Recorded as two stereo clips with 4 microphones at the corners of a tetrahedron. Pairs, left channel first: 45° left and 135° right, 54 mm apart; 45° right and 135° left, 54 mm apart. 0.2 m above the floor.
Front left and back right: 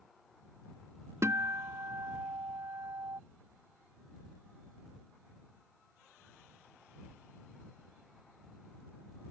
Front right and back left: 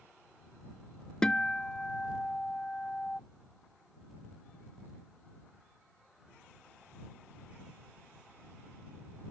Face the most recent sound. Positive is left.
turn(degrees=-115)